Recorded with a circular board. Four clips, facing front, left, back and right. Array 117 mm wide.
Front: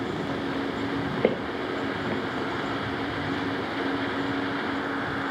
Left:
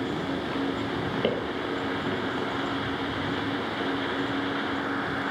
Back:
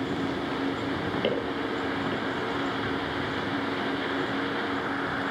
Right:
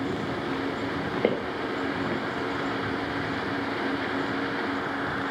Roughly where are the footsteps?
Ahead right.